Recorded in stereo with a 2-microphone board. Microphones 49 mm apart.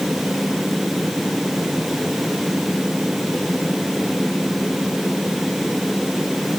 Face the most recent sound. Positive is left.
No sound to turn to.